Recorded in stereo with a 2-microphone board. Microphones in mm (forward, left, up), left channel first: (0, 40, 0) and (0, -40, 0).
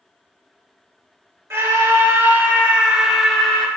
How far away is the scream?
About 1.6 m.